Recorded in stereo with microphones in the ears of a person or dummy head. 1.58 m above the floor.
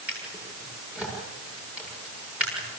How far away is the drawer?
About 7.5 m.